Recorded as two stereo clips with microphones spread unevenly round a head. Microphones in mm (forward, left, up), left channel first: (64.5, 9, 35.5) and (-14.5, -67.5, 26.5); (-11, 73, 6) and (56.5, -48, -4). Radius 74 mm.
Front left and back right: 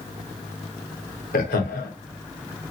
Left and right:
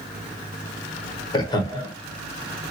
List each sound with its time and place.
1.3 s laughter: 60° left, 1.3 m